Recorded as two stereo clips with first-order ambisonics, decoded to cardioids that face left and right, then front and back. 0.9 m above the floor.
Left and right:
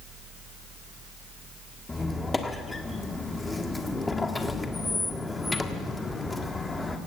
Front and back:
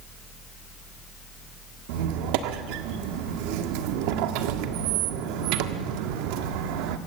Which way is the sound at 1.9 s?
170° left.